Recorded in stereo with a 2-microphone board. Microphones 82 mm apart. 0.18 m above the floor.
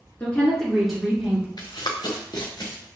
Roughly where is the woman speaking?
Centre.